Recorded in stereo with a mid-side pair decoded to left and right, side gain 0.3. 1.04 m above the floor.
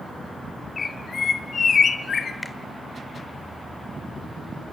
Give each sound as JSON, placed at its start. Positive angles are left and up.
{"t": 0.8, "sound": "a bird", "azimuth_deg": 60, "distance_m": 2.5}
{"t": 2.4, "sound": "a finger snap", "azimuth_deg": 30, "distance_m": 2.5}